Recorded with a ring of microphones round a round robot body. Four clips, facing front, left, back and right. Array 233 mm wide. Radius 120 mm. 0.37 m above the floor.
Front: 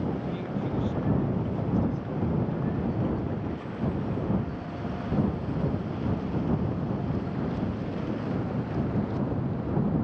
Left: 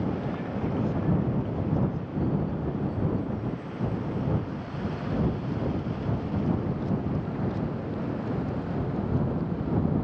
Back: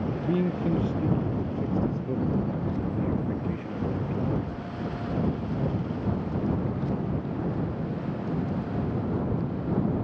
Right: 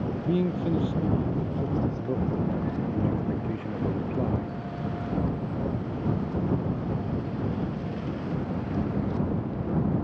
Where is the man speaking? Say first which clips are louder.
Right 4 dB, back 5 dB; 130° right; by 4.5 s 95° right.